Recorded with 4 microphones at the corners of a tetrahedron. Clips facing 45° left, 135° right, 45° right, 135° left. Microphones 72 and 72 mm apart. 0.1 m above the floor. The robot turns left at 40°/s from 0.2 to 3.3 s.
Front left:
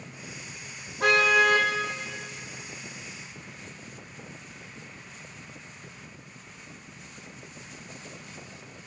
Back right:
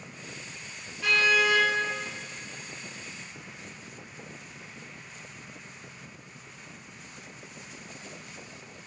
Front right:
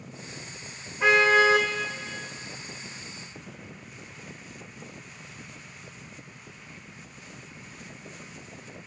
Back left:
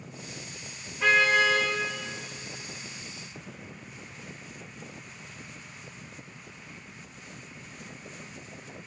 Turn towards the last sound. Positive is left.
turn(degrees=-65)